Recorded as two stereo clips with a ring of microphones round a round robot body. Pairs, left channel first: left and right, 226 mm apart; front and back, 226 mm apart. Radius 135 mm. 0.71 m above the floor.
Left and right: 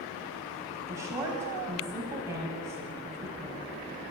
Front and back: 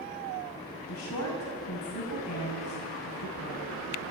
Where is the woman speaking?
10° right, 5 m.